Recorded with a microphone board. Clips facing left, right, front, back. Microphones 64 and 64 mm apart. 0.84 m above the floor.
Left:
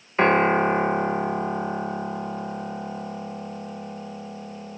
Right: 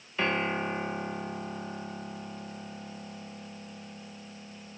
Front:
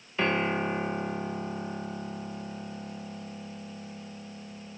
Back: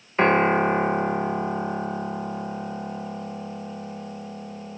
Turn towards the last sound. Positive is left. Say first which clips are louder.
# left 11 dB, back 9 dB
turn(degrees=135)